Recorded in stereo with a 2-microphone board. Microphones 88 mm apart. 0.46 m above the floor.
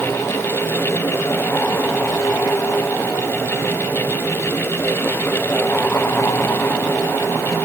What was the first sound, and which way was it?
Only background noise.